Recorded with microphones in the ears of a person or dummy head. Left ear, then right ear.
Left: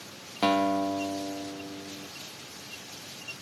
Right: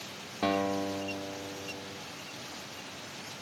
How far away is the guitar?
About 1.3 m.